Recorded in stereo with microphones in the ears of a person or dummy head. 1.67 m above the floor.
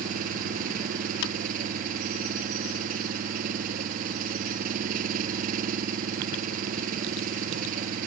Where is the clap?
70° left (ahead or behind).